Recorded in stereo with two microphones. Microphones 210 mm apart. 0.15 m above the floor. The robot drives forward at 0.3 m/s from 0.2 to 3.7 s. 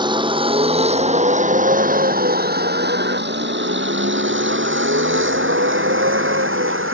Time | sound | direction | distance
0.0 | a vehicle | 20° right (ahead or behind) | ?